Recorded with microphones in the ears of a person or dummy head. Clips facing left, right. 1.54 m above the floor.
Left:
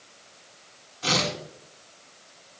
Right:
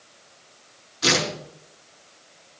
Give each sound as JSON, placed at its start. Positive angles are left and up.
{"t": 1.0, "sound": "tearing paper", "side_deg": -80, "distance_m": 6.0}